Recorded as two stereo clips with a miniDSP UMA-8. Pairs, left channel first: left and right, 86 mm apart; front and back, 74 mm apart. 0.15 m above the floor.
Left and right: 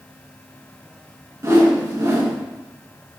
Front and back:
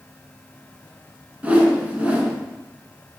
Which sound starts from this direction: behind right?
A whoosh, at 1.4 s.